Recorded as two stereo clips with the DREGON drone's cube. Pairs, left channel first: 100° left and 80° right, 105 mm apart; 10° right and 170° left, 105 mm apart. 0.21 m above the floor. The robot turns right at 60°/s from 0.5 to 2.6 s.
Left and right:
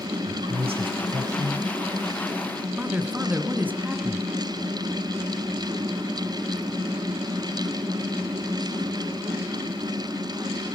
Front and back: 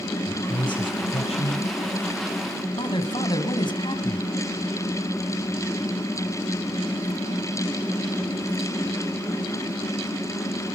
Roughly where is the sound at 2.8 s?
Ahead.